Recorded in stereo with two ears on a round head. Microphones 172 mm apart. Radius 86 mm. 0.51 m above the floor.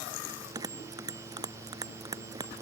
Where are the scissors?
I don't hear scissors.